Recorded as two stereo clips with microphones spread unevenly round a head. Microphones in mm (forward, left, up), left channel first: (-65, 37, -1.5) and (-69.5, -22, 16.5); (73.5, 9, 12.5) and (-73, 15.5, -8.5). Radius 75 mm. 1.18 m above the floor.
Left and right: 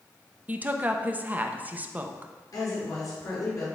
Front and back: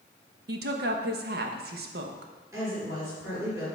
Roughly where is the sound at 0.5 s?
Behind.